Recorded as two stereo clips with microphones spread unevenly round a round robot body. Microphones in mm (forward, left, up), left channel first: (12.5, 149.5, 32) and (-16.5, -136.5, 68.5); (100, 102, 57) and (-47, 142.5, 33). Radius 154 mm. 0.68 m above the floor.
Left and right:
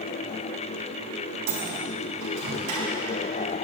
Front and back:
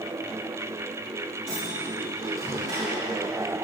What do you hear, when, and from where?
1.5 s a microwave: 120° right, 4 m